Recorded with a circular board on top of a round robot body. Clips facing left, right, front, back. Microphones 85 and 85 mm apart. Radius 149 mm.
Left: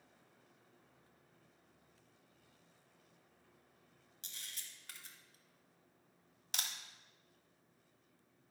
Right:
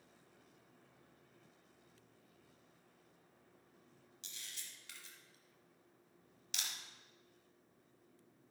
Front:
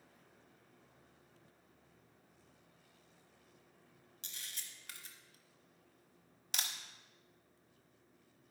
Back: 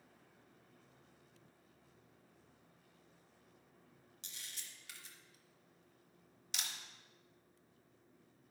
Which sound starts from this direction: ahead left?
A camera shutter, at 4.2 s.